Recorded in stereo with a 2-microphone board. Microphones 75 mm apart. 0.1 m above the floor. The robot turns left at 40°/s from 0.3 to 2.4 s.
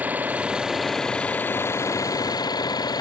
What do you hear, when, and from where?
0.0 s an engine running: 160° right; by 3.0 s 115° left